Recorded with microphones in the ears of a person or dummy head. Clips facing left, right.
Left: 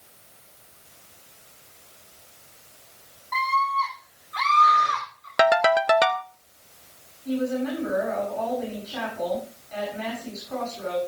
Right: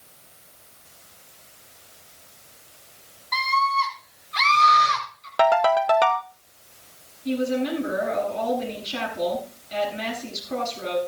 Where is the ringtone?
25° left (ahead or behind), 0.6 m.